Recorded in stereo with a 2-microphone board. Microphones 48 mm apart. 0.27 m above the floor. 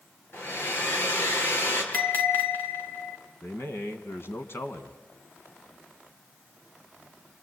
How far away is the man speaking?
About 2 m.